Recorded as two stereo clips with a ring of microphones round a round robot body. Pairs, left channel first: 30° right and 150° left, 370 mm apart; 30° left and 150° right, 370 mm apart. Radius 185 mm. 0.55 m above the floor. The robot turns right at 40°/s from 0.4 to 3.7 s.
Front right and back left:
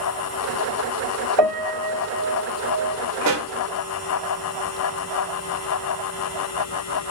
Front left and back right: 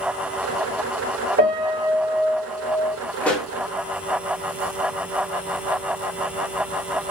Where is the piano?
90° right, 1.7 m; by 3.0 s 30° right, 1.7 m.